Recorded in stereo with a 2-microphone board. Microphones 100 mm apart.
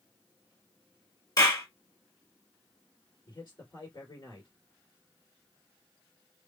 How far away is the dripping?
No dripping in this recording.